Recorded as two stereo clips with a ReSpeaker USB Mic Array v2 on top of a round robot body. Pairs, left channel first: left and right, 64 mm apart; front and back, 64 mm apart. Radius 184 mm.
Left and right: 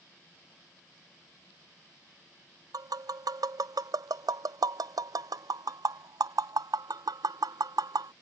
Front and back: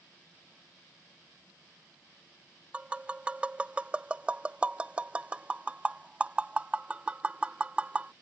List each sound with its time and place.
2.7 s tapping: 105° right